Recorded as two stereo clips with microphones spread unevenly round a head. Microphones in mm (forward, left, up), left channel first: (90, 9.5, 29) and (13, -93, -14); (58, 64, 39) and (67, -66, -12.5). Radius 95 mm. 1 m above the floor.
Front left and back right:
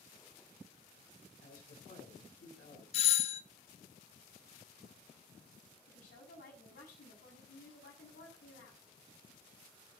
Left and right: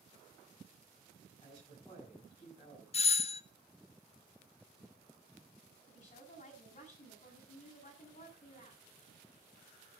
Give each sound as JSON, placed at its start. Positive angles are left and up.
{"t": 1.4, "sound": "a man speaking", "azimuth_deg": 45, "distance_m": 8.5}
{"t": 2.9, "sound": "a doorbell", "azimuth_deg": 65, "distance_m": 0.7}
{"t": 5.9, "sound": "a woman speaking", "azimuth_deg": 65, "distance_m": 7.5}